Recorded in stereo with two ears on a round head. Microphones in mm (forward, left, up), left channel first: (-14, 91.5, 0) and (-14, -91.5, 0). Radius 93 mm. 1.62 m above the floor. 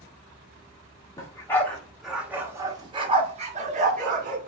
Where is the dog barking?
20° left (ahead or behind), 1.2 m; by 4.5 s 45° right (ahead or behind), 1.6 m.